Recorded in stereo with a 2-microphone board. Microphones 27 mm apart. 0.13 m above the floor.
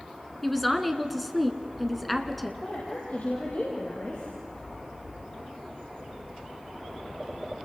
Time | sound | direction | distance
0.4 | a woman speaking | 5° left (ahead or behind) | 1.3 m
2.6 | a woman speaking | 65° left (ahead or behind) | 5 m